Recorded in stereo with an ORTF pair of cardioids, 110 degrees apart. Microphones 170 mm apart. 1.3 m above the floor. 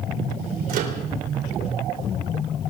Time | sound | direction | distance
0.7 | a microwave | 60° right | 3.5 m